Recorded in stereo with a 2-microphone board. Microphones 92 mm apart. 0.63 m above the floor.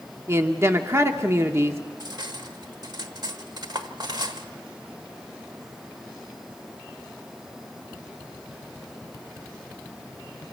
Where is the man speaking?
30° right (ahead or behind), 1.1 m.